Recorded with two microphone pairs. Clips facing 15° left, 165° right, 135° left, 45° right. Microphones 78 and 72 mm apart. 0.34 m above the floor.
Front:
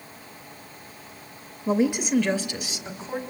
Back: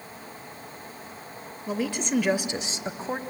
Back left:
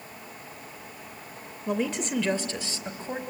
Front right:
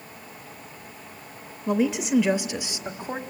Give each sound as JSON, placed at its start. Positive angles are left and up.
{"t": 1.7, "sound": "a woman speaking", "azimuth_deg": 40, "distance_m": 1.0}